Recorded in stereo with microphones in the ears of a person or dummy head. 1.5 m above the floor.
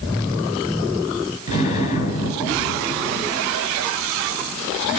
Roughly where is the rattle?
I don't hear a rattle.